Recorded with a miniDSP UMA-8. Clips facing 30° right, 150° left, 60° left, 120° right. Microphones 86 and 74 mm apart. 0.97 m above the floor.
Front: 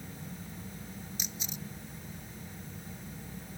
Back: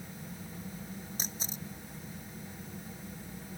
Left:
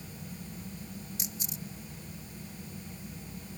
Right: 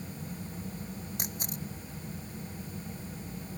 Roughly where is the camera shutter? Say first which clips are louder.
Back 1 dB, right 3 dB; behind right.